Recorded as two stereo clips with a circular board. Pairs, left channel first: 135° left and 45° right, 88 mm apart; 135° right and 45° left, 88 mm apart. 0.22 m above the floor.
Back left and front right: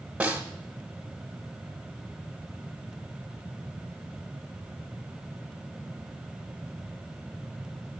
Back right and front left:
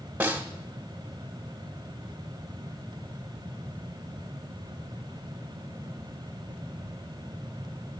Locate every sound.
0.2 s a snare drum: 5° left, 1.1 m